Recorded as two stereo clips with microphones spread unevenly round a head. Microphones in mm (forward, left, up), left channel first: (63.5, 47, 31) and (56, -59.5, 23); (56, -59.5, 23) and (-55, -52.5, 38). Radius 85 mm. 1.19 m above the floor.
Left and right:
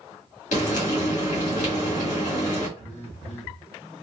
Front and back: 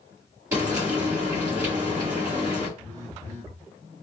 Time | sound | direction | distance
0.5 | frying | 105° left | 2 m
2.8 | a phone buzzing | 115° left | 1.3 m